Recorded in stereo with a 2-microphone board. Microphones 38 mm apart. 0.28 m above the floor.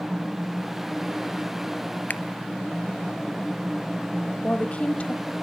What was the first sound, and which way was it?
A finger snap, 50° left (ahead or behind).